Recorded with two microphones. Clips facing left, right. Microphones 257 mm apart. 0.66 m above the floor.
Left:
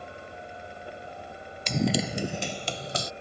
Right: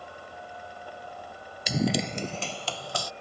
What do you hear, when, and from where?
1.7 s running footsteps: 10° right (ahead or behind); by 3.1 s 25° left (ahead or behind)